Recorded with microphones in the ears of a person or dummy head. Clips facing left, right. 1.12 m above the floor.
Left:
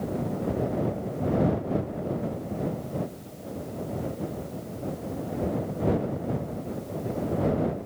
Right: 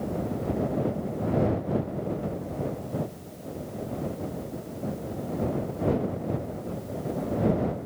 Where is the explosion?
No explosion in this recording.